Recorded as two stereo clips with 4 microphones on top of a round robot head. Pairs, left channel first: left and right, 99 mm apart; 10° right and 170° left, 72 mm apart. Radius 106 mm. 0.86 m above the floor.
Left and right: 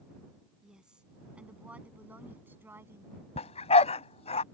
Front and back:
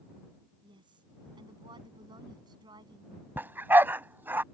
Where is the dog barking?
105° left.